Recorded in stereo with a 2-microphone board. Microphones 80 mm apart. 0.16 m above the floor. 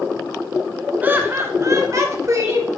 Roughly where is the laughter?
Right.